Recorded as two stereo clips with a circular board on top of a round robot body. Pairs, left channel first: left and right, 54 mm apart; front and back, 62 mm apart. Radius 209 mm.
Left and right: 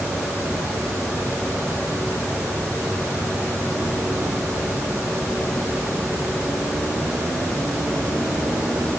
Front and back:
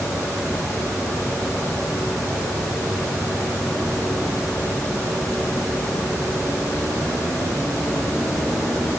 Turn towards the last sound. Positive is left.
No sound to turn to.